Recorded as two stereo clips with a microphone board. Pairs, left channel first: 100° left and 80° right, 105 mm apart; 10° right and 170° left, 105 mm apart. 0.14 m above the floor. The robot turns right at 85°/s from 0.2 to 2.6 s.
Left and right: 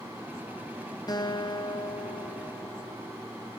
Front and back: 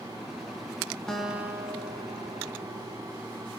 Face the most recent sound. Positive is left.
turn(degrees=-160)